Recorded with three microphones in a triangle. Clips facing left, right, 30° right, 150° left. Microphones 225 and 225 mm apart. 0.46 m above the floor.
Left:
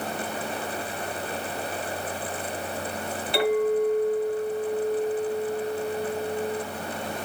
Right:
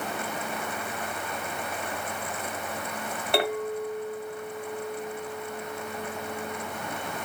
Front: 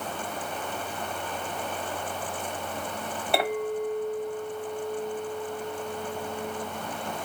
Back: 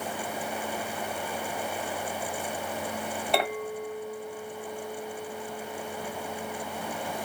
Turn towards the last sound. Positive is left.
turn(degrees=-115)